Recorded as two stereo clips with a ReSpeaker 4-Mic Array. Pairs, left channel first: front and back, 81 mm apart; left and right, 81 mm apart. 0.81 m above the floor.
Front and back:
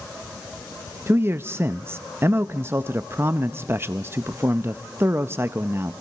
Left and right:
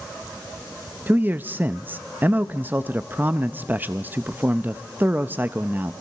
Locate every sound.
1.1 s a man speaking: 140° right, 0.6 m